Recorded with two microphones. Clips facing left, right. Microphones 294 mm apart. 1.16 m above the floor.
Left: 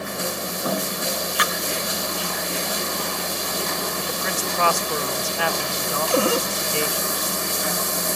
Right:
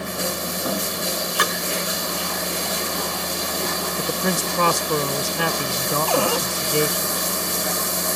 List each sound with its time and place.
1.4 s a splash: 50° right (ahead or behind)
4.0 s a man speaking: 50° right (ahead or behind)
6.1 s a cupboard door: 25° left (ahead or behind)